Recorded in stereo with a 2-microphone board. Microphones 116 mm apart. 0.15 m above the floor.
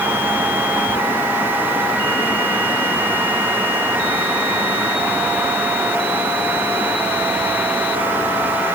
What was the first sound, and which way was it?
Only background noise.